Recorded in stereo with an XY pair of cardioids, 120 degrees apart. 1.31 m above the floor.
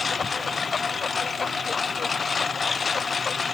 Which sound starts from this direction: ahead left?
A lawn mower, at 0.0 s.